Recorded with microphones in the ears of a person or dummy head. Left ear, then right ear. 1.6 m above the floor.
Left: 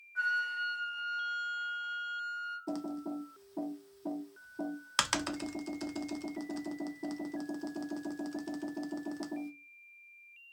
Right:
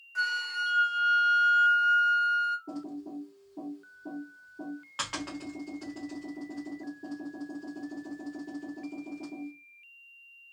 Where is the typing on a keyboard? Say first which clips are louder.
Left 1 dB; 70° left (ahead or behind), 0.6 m.